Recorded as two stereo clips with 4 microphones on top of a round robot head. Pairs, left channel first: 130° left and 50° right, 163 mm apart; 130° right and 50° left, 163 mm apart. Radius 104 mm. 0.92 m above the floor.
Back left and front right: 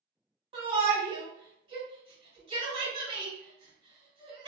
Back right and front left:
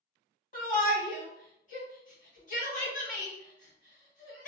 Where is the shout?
105° right, 1.6 m.